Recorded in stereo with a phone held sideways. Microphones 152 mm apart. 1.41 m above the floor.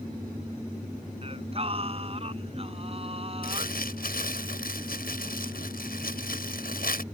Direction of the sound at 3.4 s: 80° left.